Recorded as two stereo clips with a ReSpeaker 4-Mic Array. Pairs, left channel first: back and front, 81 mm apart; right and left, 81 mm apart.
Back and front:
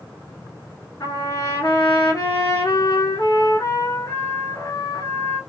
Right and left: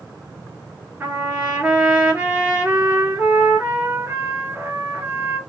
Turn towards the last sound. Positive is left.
turn(degrees=155)